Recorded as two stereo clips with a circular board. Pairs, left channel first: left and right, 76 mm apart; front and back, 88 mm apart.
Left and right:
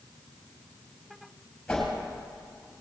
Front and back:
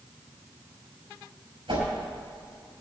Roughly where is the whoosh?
Behind.